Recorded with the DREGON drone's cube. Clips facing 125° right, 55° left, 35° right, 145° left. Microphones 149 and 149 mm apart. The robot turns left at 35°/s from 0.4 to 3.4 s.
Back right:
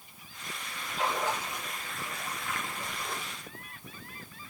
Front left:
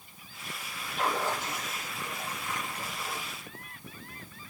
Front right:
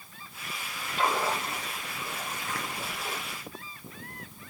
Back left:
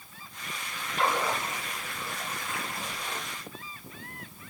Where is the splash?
40° left, 5.5 m; by 3.2 s 40° right, 5.5 m.